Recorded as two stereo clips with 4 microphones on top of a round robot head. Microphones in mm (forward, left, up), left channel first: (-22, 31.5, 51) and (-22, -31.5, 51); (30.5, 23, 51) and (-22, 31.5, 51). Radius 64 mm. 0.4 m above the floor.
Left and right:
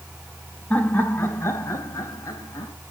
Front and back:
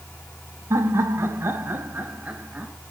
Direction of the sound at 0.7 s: 155° left.